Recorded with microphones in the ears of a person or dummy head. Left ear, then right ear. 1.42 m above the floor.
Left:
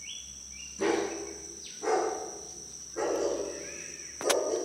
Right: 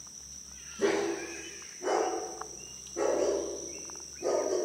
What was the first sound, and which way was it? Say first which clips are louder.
A dog barking: even; 70° left (ahead or behind).